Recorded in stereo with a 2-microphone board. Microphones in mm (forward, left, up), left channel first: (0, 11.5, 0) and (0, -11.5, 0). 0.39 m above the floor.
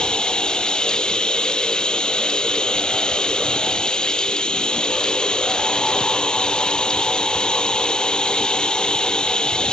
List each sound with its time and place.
0.0 s running water: 40° left (ahead or behind)